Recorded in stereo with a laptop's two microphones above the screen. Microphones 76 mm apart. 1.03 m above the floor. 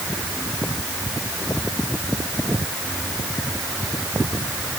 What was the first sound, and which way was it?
Only background noise.